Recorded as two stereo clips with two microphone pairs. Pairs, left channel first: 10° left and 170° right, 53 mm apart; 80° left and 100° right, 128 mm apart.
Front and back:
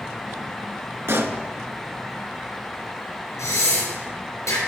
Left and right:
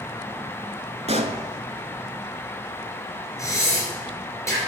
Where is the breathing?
15° left, 4 m.